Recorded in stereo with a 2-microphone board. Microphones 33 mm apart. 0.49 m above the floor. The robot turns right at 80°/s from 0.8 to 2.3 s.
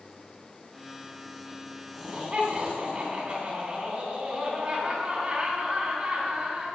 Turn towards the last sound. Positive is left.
turn(degrees=-30)  # may be behind; listen again after turning